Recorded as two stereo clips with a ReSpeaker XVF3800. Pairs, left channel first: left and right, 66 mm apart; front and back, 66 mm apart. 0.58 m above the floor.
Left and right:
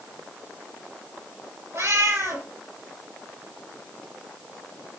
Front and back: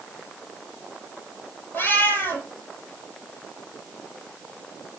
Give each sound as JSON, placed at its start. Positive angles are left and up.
{"t": 1.7, "sound": "a cat meowing", "azimuth_deg": -55, "distance_m": 6.0}